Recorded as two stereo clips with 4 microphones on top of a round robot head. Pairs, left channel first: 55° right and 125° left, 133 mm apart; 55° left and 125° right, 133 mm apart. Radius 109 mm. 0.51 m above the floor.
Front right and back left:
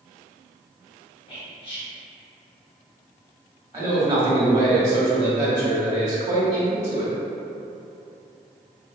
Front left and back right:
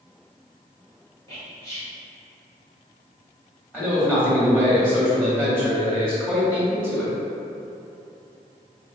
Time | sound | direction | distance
1.3 | whispering | 10° right | 1.9 m
3.7 | a man speaking | 130° left | 1.1 m